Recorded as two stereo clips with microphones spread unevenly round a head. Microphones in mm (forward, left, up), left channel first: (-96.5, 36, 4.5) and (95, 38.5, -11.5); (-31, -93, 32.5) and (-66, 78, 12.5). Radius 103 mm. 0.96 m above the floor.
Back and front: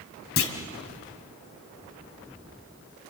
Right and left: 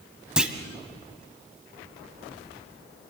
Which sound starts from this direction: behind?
A clunk, at 0.4 s.